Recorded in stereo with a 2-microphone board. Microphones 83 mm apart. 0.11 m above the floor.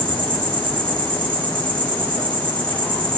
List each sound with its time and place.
0.0 s an insect: 80° right, 1.2 m